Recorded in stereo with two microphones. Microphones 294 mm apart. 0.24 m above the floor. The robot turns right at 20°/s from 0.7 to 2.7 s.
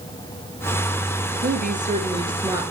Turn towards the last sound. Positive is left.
turn(degrees=-10)  # may be behind; listen again after turning